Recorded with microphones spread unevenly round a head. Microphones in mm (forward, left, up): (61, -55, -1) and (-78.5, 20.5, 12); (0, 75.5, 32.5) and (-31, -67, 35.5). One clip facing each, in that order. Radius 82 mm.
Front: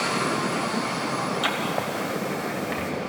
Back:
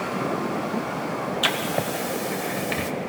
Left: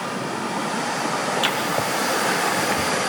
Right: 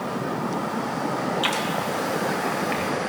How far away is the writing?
About 1.6 m.